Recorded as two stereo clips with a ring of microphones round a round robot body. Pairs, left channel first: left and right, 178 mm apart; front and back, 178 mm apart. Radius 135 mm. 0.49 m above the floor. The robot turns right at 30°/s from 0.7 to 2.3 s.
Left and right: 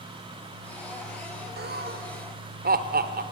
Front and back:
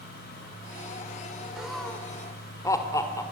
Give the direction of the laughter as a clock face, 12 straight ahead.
3 o'clock.